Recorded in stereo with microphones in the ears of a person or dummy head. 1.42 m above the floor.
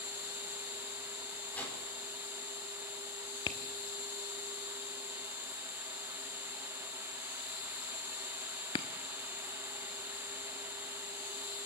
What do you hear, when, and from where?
0.0 s an insect: 55° left (ahead or behind), 9.5 m
1.5 s a whoosh: 10° left (ahead or behind), 5.5 m
3.5 s tapping: 20° left (ahead or behind), 0.9 m